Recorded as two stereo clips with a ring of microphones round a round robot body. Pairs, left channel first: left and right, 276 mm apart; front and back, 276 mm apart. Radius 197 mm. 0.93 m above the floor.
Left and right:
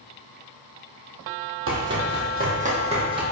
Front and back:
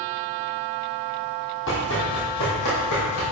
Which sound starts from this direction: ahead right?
Running footsteps, at 1.7 s.